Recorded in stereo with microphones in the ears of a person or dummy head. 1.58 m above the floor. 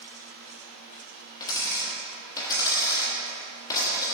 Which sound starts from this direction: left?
A dropped coin, at 1.4 s.